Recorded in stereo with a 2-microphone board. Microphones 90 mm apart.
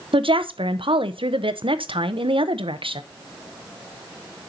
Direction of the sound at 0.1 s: 70° right (ahead or behind).